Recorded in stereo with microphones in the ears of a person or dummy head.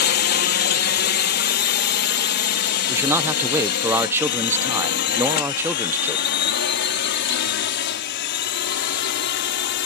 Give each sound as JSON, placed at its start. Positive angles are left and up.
{"t": 0.0, "sound": "a drone", "side_deg": 50}
{"t": 2.9, "sound": "a man speaking", "side_deg": -15}